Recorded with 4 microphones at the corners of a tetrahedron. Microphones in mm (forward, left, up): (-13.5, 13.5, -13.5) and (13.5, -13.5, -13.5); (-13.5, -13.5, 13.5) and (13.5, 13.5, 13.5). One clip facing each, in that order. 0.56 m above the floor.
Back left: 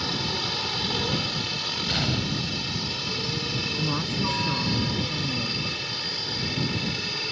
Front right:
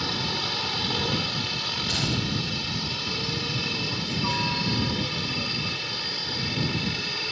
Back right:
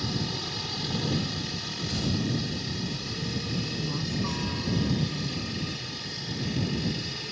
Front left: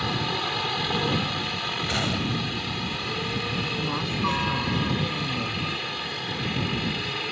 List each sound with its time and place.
0.0 s a helicopter: 40° left
1.9 s a gunshot: 60° left
3.8 s a woman speaking: 90° left